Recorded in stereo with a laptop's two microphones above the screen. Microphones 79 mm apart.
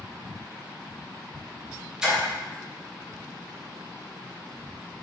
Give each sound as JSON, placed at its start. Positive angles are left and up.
{"t": 2.0, "sound": "a splash", "side_deg": -10, "distance_m": 0.7}